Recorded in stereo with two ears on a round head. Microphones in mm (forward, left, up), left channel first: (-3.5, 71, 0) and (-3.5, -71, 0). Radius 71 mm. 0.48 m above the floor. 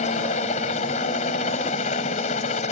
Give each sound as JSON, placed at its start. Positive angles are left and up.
{"t": 0.0, "sound": "a helicopter", "side_deg": 45}